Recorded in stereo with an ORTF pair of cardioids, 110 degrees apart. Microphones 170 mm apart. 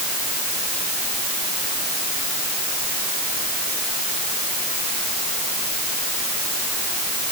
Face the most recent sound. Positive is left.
No sound to turn to.